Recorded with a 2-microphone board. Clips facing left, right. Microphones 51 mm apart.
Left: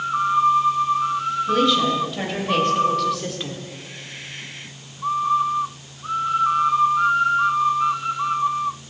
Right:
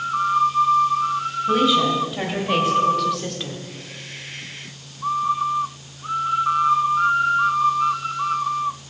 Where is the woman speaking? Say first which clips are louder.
Right 2 dB; 10° right (ahead or behind), 4 m; by 3.6 s 10° left (ahead or behind), 1.5 m.